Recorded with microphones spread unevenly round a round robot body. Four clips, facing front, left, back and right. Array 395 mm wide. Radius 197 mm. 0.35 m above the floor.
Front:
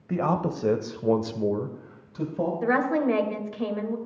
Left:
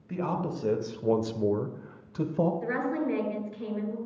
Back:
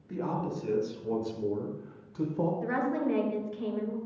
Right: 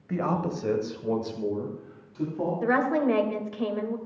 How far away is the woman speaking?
About 1.8 m.